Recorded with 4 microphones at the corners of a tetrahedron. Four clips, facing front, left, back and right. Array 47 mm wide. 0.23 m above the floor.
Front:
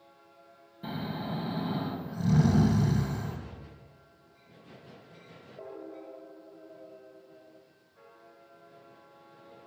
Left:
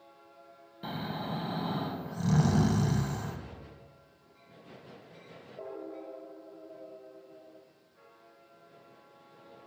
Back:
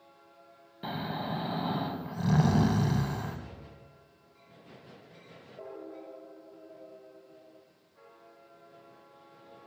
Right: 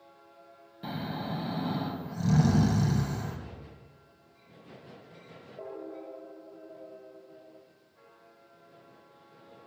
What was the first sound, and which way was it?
Snoring, 175° left.